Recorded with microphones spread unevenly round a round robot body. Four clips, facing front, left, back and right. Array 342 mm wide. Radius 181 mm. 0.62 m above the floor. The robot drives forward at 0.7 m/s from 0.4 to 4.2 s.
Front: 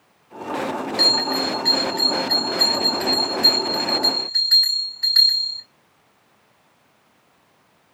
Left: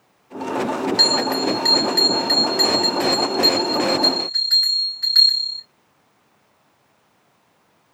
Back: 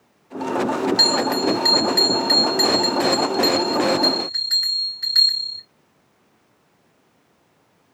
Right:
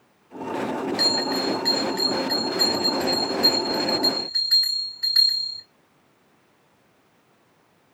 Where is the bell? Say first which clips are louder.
Left 4 dB, back 3 dB; 160° right, 0.9 m; by 5.6 s 175° right, 3 m.